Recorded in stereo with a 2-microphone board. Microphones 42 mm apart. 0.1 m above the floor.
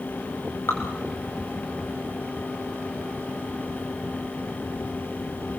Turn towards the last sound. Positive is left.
turn(degrees=75)  # may be behind; listen again after turning